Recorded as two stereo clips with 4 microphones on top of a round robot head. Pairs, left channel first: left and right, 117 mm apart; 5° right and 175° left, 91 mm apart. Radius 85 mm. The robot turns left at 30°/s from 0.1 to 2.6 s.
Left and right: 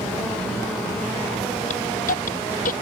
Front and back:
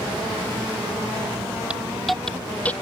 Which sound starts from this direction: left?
A hiss, at 1.7 s.